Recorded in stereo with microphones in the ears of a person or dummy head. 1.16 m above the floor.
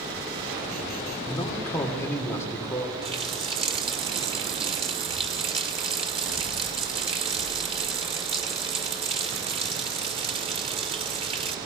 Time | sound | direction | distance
1.3 | a man speaking | 10° left (ahead or behind) | 3 m
3.0 | a running tap | 30° right (ahead or behind) | 1.2 m